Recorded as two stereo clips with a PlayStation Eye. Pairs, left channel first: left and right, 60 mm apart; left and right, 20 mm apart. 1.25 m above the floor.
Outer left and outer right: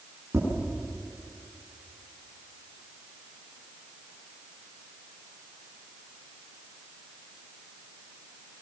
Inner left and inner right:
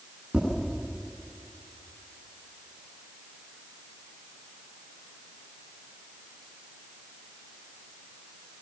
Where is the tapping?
45° right (ahead or behind), 9.5 m.